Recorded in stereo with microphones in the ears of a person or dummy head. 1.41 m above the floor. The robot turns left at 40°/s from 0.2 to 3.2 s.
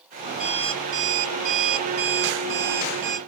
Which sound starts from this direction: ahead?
An alarm clock, at 0.4 s.